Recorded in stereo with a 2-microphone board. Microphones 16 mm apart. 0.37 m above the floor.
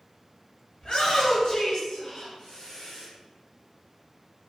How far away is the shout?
About 2.0 m.